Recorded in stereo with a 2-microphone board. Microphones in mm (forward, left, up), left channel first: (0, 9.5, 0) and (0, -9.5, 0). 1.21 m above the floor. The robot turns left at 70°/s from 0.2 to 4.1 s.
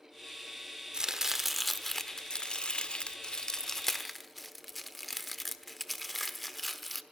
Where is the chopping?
30° right (ahead or behind), 1.0 m; by 7.0 s 5° left (ahead or behind), 1.0 m.